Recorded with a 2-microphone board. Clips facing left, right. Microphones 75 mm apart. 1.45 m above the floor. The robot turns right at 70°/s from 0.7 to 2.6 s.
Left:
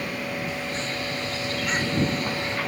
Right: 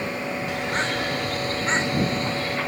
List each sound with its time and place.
0.5 s a bird: 100° right; by 2.6 s 30° left